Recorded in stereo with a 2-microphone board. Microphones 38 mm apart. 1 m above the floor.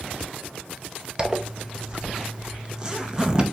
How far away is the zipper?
About 0.5 m.